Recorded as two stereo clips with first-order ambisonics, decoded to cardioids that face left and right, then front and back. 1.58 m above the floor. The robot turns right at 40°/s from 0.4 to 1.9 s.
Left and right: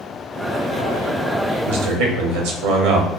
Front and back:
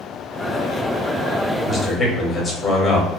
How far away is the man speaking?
About 0.7 m.